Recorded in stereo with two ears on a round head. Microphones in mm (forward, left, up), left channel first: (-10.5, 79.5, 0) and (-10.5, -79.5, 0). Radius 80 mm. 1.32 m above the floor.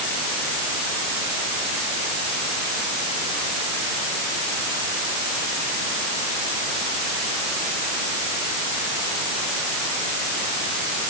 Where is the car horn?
I don't hear a car horn.